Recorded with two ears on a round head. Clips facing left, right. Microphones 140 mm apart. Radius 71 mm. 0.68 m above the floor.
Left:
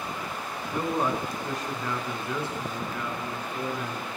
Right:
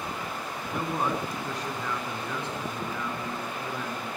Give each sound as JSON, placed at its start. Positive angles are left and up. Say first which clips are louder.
{"t": 0.7, "sound": "a man speaking", "louder": "left 2 dB", "side_deg": -5, "distance_m": 6.5}